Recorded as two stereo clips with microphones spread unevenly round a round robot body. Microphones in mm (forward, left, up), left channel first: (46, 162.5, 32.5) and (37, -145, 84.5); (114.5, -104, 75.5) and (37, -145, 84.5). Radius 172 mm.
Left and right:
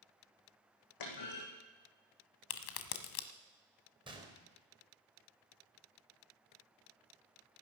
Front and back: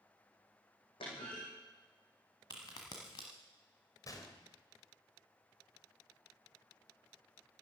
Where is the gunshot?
15° right, 3 m.